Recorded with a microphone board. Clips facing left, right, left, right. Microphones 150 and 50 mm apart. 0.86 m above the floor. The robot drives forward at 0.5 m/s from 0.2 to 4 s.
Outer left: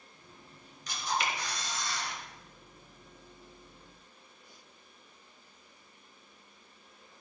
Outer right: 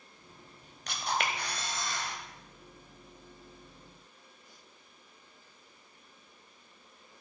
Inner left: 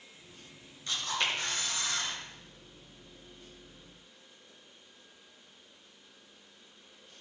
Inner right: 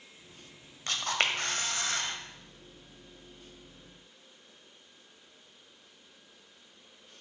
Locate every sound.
0.9 s a camera shutter: 65° right (ahead or behind), 1.3 m; by 2.1 s 50° right (ahead or behind), 1.6 m